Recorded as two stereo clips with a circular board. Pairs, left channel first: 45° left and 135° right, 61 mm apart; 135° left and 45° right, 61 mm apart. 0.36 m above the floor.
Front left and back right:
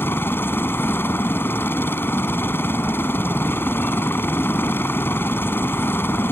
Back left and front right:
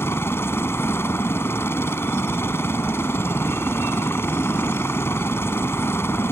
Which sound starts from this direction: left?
A helicopter, at 0.0 s.